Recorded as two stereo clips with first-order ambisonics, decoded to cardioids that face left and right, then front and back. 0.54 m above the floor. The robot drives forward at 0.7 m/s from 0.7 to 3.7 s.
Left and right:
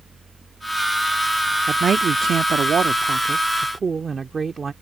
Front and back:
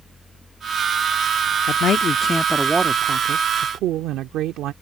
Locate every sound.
1.7 s a man speaking: 30° right; by 4.7 s 160° right